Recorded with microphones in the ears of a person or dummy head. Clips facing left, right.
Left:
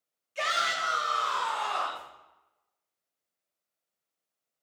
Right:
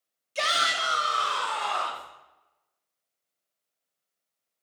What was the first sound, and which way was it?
A shout, 60° right (ahead or behind).